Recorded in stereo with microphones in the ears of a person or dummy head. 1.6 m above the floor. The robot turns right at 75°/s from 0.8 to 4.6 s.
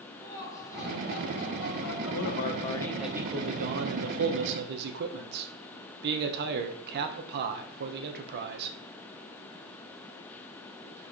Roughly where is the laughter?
Ahead.